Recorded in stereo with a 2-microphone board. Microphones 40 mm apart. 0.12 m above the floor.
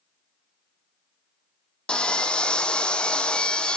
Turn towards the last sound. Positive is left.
turn(degrees=25)  # may be behind; listen again after turning